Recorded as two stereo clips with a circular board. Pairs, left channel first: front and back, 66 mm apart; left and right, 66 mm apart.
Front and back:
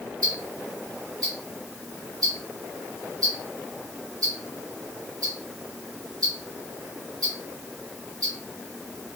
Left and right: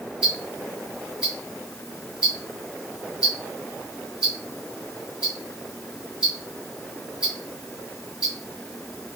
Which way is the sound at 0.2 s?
170° right.